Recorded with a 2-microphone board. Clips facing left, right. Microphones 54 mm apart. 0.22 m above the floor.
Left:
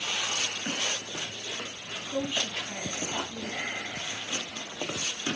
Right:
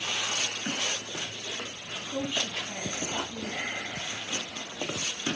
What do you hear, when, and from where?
2.1 s a woman speaking: 15° left (ahead or behind), 1.6 m